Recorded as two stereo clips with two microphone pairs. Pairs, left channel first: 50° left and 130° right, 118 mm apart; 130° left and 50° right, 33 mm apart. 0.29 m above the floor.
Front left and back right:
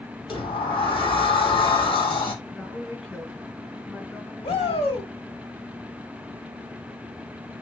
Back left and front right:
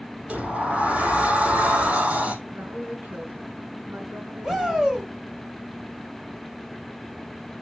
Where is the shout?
30° left, 2.5 m.